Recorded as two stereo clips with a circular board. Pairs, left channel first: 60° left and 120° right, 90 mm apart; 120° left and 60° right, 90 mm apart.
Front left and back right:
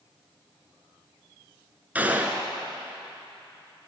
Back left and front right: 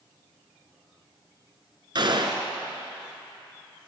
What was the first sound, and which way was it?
A gunshot, 50° right.